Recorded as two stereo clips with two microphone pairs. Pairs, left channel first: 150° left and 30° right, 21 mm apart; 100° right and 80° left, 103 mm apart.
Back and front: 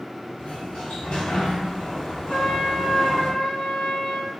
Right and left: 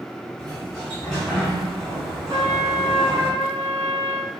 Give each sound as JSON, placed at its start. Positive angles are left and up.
{"t": 0.4, "sound": "a sliding door", "azimuth_deg": 175, "distance_m": 1.5}
{"t": 2.3, "sound": "a trumpet", "azimuth_deg": 100, "distance_m": 0.8}